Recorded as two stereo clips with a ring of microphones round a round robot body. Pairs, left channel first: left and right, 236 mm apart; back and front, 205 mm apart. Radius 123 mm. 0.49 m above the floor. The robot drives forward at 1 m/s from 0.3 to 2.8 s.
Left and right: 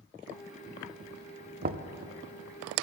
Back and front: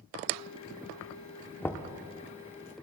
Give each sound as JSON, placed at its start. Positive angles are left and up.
{"t": 1.6, "sound": "knocking", "azimuth_deg": -100, "distance_m": 0.7}